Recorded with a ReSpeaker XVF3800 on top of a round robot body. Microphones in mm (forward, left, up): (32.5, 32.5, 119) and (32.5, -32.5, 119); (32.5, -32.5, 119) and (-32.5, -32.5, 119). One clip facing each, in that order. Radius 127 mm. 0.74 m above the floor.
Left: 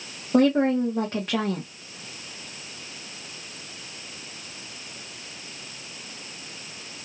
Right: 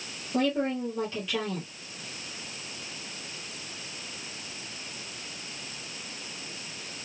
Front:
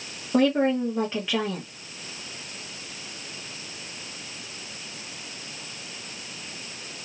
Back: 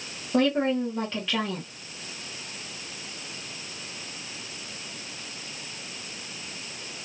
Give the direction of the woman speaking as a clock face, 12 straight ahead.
9 o'clock.